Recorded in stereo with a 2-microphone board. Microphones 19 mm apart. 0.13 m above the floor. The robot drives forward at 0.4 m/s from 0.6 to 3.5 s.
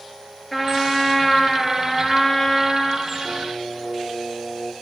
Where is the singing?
40° right (ahead or behind), 3 m.